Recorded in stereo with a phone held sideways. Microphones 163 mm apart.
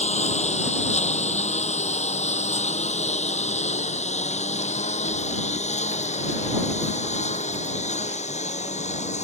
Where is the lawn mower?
45° left (ahead or behind).